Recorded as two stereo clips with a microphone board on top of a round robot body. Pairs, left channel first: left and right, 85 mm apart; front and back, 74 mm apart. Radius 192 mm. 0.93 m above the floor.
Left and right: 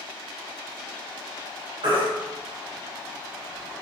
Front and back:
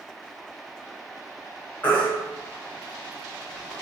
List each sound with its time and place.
1.8 s a baby crying: 65° right, 1.0 m